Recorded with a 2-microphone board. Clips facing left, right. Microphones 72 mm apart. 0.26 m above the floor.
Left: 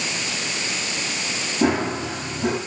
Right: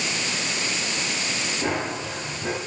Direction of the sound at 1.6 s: 75° left (ahead or behind).